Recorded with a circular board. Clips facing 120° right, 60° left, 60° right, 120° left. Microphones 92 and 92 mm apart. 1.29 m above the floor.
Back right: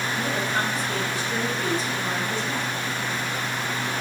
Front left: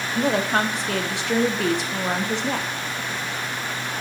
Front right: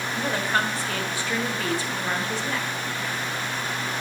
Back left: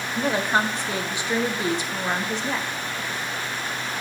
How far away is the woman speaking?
About 0.8 m.